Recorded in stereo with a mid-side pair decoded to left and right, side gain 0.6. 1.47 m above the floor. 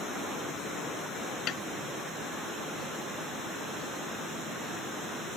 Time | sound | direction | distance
1.5 | a snare drum | 55° left | ?